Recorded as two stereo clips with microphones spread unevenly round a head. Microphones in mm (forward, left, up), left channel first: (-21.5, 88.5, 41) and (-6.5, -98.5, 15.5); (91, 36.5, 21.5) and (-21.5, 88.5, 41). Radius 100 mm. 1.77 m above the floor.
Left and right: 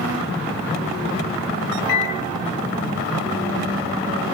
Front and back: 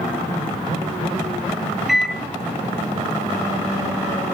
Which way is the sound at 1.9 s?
70° left.